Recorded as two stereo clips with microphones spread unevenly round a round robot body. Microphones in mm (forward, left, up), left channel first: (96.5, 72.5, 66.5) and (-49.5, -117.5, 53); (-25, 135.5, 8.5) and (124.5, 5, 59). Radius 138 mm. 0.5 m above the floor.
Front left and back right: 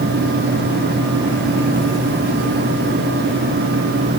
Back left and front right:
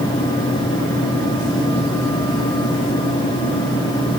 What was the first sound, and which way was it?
Only background noise.